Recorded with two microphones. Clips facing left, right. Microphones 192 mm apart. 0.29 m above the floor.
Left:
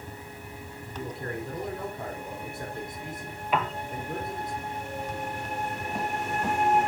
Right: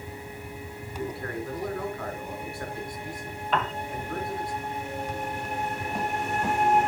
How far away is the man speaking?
About 3.5 m.